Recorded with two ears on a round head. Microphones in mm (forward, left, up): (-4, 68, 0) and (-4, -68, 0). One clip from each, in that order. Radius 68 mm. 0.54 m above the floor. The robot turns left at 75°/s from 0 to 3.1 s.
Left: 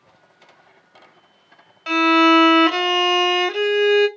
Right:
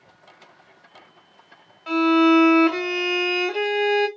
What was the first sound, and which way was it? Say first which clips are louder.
A violin: left 3 dB; 120° left.